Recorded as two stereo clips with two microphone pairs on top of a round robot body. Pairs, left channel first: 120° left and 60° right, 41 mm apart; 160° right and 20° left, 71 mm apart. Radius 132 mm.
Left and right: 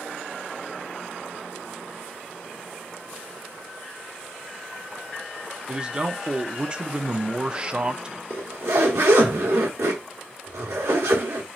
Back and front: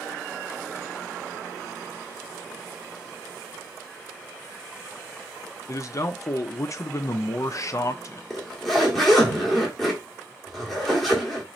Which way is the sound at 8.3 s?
70° right.